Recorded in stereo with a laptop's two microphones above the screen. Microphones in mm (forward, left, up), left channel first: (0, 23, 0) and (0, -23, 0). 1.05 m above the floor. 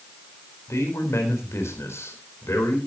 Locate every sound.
0.7 s a man speaking: 70° left (ahead or behind), 4 m